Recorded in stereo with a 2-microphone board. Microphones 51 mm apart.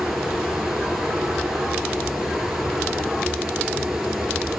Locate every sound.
0.0 s running water: 10° right (ahead or behind), 1.2 m